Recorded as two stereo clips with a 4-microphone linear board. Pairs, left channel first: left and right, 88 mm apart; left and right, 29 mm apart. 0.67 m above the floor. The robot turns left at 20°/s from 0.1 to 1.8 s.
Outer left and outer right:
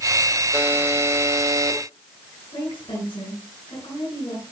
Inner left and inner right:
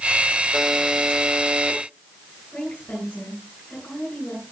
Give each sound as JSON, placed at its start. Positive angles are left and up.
{"t": 0.5, "sound": "a buzzer", "side_deg": -20, "distance_m": 1.8}
{"t": 2.5, "sound": "a woman speaking", "side_deg": 75, "distance_m": 9.5}